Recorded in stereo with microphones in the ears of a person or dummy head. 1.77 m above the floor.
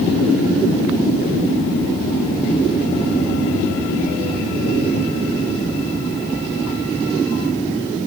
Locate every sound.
Only background noise.